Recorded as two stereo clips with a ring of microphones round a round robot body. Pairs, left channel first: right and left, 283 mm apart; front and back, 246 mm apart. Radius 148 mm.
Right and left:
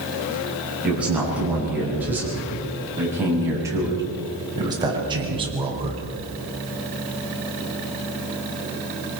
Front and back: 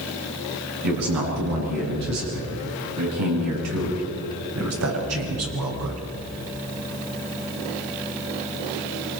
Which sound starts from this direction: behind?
A man speaking, at 0.8 s.